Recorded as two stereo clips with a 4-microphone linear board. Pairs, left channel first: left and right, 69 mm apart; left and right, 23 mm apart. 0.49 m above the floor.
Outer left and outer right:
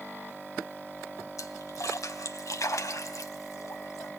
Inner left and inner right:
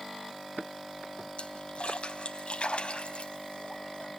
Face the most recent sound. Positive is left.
turn(degrees=50)  # may be behind; listen again after turning